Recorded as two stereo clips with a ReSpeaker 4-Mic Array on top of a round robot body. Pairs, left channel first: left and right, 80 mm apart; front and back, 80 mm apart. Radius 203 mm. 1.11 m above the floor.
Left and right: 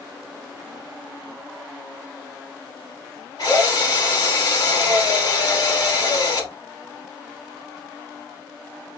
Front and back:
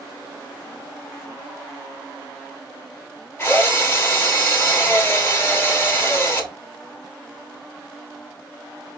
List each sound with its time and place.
3.4 s a drill: 55° left, 2.5 m